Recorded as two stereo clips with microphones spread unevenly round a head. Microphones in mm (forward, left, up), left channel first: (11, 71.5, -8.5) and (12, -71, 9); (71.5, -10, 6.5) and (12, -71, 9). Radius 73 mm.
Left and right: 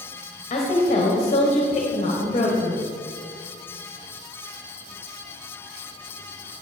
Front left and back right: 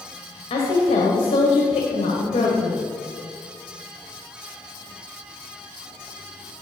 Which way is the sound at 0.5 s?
40° left.